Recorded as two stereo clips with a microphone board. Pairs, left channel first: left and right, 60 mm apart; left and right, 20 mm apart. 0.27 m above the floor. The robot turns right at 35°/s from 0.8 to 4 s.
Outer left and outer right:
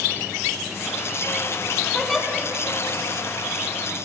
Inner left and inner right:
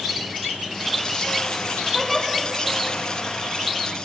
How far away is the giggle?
About 1.5 m.